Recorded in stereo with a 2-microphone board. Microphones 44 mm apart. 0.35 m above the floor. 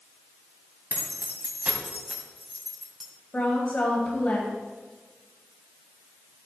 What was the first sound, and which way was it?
Keys jangling, 50° right (ahead or behind).